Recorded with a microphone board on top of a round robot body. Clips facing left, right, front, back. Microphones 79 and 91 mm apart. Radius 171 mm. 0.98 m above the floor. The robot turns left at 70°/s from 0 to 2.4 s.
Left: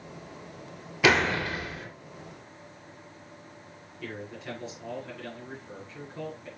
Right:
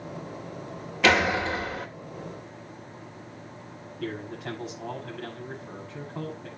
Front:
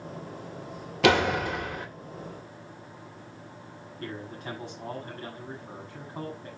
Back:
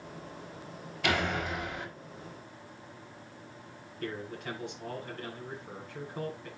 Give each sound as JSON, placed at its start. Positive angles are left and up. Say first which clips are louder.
{"t": 1.0, "sound": "a door slam", "louder": "right 1 dB, front 8 dB", "azimuth_deg": 5, "distance_m": 3.0}
{"t": 4.0, "sound": "a man speaking", "louder": "right 5 dB, even", "azimuth_deg": -60, "distance_m": 8.0}